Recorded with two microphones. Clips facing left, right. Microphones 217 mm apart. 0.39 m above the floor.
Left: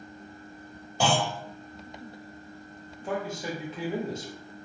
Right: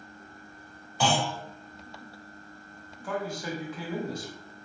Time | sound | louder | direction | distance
1.0 | a clunk | left 1 dB | 45° left (ahead or behind) | 1.3 m
3.0 | a man speaking | left 1 dB | 25° left (ahead or behind) | 0.8 m